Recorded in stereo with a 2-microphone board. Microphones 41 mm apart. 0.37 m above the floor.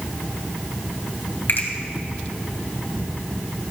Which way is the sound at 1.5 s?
55° left (ahead or behind).